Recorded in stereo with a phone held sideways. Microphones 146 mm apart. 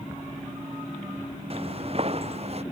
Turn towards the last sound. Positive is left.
turn(degrees=-45)  # may be behind; listen again after turning